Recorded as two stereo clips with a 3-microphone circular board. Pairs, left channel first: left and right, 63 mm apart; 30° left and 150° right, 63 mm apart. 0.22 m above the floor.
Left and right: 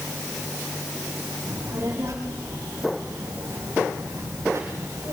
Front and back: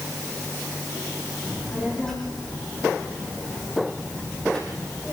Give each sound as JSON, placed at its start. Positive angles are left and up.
{"t": 1.4, "sound": "a child speaking", "azimuth_deg": -50, "distance_m": 8.0}